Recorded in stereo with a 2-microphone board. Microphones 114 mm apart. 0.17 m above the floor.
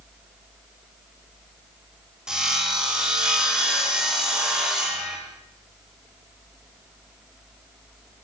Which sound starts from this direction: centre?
Sawing, at 2.3 s.